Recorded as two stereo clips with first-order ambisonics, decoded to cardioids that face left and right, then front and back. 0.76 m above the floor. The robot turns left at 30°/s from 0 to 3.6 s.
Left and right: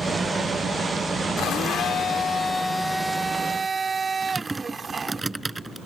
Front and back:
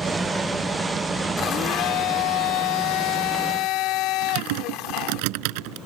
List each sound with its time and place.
1.4 s a blender: 50° left; by 5.2 s 15° right
4.2 s typing on a keyboard: 170° right